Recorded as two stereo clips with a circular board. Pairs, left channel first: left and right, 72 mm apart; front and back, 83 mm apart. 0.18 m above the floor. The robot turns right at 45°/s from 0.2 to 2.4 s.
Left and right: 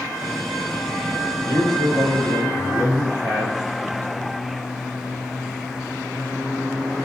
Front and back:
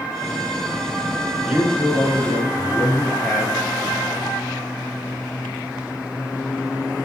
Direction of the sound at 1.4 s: 105° right.